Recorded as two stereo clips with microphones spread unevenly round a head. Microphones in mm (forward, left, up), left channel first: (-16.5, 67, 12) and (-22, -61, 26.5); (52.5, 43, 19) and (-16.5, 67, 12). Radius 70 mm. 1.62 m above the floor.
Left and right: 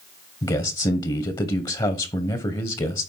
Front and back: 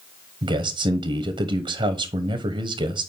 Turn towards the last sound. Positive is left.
turn(degrees=145)